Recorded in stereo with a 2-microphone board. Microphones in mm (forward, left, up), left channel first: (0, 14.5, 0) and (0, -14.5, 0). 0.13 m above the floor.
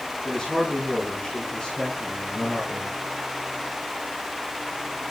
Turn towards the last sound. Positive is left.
turn(degrees=35)  # may be behind; listen again after turning